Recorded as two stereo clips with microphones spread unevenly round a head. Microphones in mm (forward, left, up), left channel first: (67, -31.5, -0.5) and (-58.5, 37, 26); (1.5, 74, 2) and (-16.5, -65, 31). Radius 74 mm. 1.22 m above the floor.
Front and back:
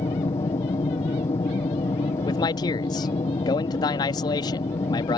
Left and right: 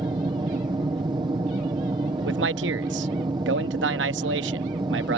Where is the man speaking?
95° right.